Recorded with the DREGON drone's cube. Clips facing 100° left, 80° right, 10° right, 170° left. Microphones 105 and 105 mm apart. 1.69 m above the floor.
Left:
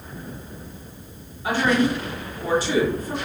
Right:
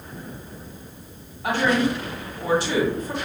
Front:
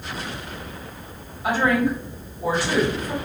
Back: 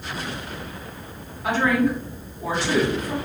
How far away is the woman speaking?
About 1.6 m.